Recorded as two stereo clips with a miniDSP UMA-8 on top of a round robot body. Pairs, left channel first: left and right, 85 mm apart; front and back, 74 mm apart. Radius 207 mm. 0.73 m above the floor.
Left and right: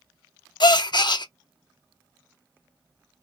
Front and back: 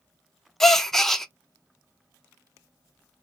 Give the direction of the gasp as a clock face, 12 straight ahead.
9 o'clock.